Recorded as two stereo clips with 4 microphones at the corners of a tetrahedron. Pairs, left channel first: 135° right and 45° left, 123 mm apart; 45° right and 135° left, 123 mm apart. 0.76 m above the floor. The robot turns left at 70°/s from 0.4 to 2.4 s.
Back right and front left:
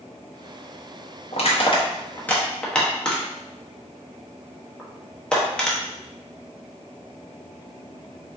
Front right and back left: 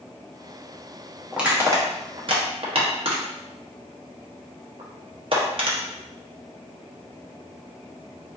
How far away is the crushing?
About 0.7 m.